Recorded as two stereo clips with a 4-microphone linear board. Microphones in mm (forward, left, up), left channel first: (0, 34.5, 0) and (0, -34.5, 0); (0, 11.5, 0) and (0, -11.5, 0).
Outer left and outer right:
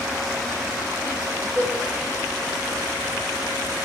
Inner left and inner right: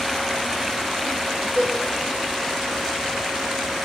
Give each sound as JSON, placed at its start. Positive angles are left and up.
{"t": 1.6, "sound": "a cowbell", "side_deg": 10, "distance_m": 1.9}